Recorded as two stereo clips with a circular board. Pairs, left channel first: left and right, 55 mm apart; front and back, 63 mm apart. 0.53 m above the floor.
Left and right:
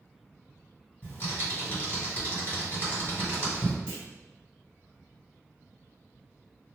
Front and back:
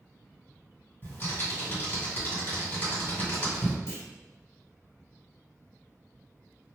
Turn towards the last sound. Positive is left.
turn(degrees=20)